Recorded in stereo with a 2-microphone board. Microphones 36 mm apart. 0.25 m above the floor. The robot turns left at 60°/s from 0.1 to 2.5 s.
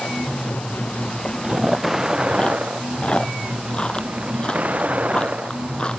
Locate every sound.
0.0 s a vehicle: 85° left; by 6.0 s 45° right (ahead or behind)
1.4 s chewing: 30° right (ahead or behind); by 6.0 s 30° left (ahead or behind)